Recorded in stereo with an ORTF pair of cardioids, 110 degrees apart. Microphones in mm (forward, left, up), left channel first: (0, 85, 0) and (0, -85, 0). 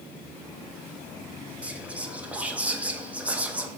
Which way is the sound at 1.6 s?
10° right.